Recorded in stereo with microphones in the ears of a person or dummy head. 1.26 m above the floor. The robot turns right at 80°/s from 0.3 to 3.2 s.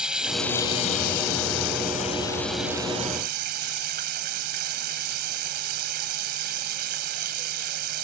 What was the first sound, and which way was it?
Running water, straight ahead.